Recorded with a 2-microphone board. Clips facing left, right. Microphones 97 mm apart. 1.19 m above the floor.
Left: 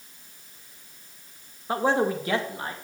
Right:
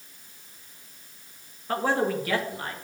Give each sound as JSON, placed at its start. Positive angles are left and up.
{"t": 1.7, "sound": "a man speaking", "side_deg": 15, "distance_m": 1.6}